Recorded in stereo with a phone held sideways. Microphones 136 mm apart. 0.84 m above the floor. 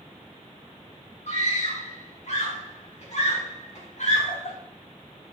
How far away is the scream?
About 4.5 m.